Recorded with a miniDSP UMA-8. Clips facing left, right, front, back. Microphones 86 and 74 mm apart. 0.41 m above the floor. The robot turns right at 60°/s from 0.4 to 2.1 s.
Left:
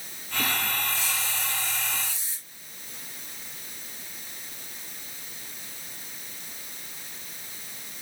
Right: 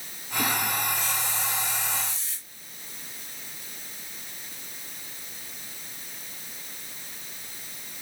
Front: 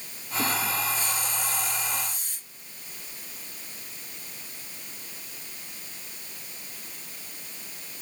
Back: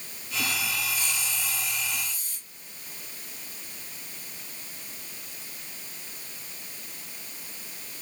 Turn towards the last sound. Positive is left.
turn(degrees=10)